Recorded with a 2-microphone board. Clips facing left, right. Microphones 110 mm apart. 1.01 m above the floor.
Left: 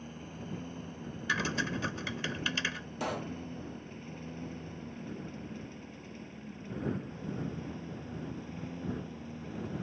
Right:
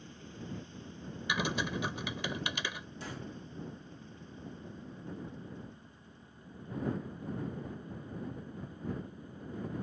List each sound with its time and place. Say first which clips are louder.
0.0 s a lawn mower: left 3 dB; 55° left (ahead or behind); by 9.8 s 85° left
1.3 s typing on a keyboard: even; 15° right (ahead or behind)
3.0 s a pop: left 10 dB; 70° left (ahead or behind)